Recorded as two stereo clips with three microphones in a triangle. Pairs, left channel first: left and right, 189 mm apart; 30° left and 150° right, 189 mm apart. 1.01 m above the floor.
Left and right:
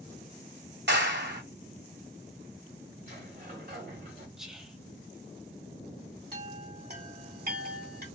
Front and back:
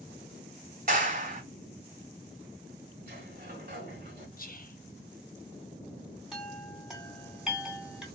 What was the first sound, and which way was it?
A clap, 105° right.